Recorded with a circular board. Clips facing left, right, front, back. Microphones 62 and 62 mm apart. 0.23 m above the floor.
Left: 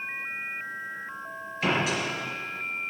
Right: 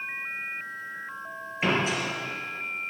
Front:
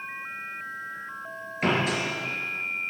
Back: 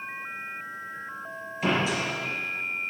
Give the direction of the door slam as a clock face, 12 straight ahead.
1 o'clock.